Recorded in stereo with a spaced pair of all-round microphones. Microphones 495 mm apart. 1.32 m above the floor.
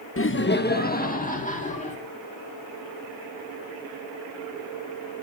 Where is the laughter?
30° left (ahead or behind), 0.8 m; by 2.0 s 15° left (ahead or behind), 3 m.